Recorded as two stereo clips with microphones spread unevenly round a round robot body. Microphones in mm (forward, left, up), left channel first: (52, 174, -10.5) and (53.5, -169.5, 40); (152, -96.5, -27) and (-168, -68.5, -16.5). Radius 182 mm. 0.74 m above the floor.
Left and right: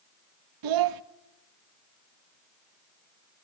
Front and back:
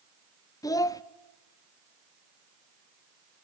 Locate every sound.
0.6 s a child speaking: 80° right, 0.7 m